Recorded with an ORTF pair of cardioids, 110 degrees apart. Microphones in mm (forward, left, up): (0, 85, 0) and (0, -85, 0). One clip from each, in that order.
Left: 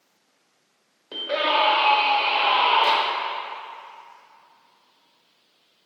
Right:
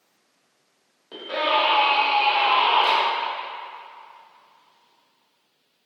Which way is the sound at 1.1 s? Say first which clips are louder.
Even; 30° left.